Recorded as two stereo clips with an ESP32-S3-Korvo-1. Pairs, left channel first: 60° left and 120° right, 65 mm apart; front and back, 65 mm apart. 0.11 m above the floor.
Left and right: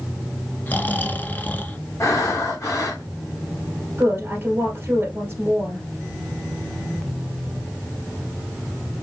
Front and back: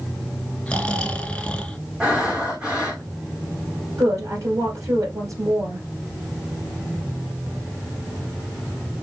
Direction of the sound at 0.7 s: 50° left.